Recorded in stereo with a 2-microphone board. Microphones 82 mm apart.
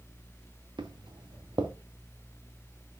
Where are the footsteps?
65° right (ahead or behind), 1.5 m.